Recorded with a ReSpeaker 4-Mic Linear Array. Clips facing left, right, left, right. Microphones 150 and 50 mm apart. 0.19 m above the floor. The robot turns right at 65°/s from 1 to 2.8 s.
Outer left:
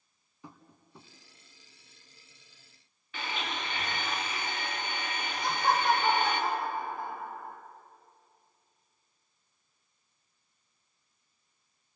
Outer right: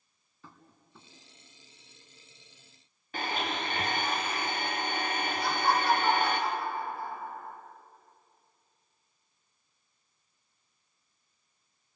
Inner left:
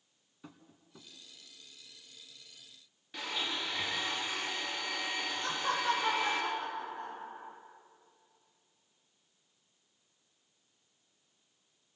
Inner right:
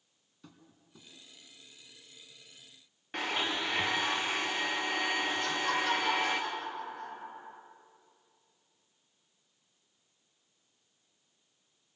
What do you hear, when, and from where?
0.4 s tapping: 15° left (ahead or behind), 2 m; by 1.1 s 20° left (ahead or behind), 2 m
3.1 s a blender: 40° right (ahead or behind), 4 m
5.4 s laughter: 20° left (ahead or behind), 5.5 m